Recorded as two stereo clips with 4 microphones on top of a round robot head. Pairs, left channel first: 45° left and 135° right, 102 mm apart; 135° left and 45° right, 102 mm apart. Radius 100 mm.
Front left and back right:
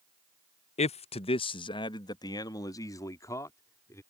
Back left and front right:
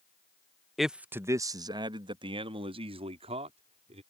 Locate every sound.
0.8 s a man speaking: 45° left; by 4.0 s 20° right